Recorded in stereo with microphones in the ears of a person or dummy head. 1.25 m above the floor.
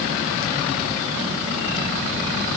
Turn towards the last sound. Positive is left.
No sound to turn to.